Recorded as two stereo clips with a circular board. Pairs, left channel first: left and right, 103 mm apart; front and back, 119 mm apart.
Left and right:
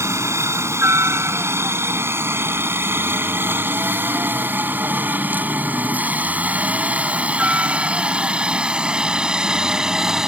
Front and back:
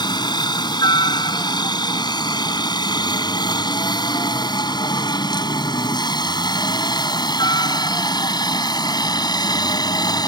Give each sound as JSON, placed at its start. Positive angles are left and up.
{"t": 0.0, "sound": "a helicopter", "azimuth_deg": -40}